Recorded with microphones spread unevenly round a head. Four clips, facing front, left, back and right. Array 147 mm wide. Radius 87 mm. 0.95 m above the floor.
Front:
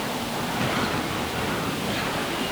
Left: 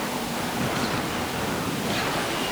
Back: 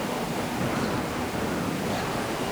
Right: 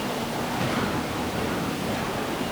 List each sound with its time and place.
Only background noise.